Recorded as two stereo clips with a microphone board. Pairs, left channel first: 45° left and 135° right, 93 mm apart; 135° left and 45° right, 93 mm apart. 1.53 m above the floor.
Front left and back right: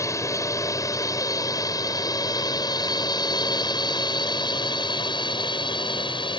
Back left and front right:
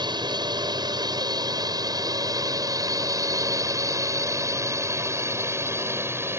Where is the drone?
10° right; by 6.4 s 20° left.